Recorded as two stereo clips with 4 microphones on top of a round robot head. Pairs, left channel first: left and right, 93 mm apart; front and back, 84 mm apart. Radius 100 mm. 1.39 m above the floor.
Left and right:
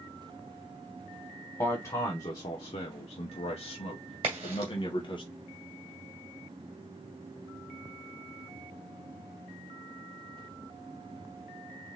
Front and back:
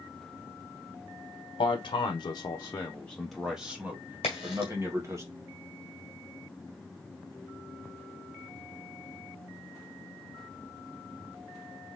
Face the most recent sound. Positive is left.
turn(degrees=-40)